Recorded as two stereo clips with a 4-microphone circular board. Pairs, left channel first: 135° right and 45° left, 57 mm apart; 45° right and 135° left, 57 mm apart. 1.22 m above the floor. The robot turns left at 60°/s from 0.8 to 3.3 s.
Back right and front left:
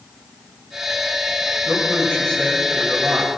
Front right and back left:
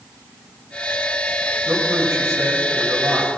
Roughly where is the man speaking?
Behind.